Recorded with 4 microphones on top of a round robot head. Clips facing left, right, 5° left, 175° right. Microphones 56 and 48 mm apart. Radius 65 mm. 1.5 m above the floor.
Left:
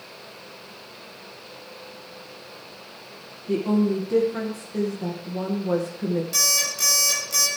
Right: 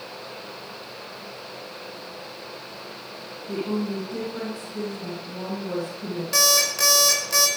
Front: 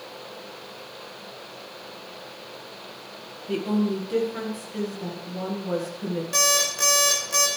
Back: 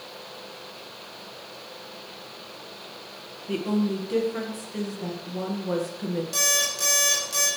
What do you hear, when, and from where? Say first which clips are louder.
3.5 s a woman speaking: left 6 dB, front 1 dB; 100° left, 1.8 m
6.3 s an alarm clock: right 5 dB, front 3 dB; 50° right, 4.5 m